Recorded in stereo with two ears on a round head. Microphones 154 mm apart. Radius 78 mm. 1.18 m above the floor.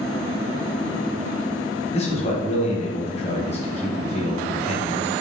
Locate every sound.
1.9 s a man speaking: 40° left (ahead or behind), 1.2 m